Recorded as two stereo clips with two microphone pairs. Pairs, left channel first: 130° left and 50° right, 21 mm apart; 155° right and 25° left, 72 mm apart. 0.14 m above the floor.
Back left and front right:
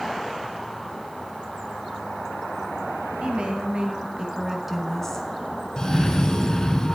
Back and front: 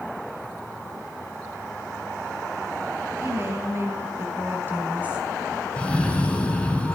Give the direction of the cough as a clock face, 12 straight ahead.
7 o'clock.